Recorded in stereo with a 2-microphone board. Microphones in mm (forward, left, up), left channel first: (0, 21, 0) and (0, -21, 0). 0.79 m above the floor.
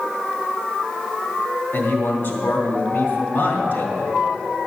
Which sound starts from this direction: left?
A man speaking, at 1.7 s.